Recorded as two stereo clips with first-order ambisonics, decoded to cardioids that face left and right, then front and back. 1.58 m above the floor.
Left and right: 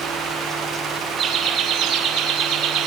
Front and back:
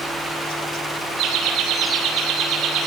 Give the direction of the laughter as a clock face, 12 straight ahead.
5 o'clock.